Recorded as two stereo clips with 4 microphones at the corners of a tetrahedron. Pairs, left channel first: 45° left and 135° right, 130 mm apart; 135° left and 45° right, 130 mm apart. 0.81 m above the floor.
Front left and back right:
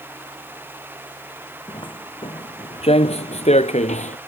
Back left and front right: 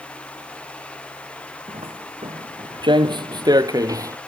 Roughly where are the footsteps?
Ahead.